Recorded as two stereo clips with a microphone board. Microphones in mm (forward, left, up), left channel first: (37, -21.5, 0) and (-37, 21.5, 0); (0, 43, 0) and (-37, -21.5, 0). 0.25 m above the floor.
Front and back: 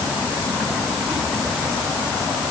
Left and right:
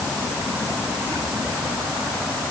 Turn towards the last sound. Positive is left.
No sound to turn to.